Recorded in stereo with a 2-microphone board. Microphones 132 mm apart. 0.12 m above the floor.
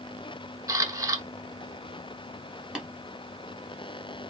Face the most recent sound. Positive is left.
turn(degrees=-5)  # may be behind; listen again after turning